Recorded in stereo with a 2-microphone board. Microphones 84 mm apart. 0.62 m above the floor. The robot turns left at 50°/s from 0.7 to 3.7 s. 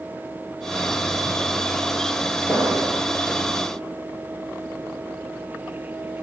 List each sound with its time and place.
2.5 s an explosion: 25° left (ahead or behind), 3.5 m; by 3.0 s centre (ahead or behind), 3.5 m